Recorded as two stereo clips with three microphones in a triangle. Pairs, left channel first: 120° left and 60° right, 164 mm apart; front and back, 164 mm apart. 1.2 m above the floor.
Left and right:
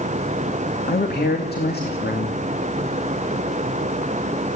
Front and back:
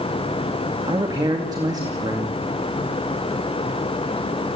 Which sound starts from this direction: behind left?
A man speaking, at 0.9 s.